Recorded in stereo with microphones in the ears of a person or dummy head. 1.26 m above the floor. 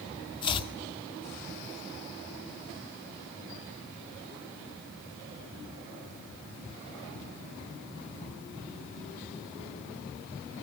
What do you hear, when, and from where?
0.4 s chopping: 30° left (ahead or behind), 1.6 m